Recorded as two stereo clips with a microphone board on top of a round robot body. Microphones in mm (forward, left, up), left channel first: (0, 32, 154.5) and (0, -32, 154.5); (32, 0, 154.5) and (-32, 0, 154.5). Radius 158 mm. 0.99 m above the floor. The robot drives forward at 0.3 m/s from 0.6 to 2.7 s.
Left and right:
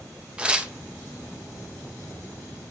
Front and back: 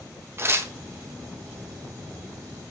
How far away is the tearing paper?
About 0.7 m.